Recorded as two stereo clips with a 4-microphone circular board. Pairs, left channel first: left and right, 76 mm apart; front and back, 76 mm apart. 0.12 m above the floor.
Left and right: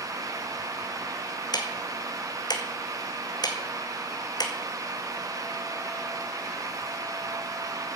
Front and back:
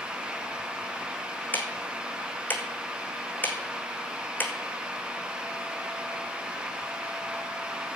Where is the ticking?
65° left, 1.8 m.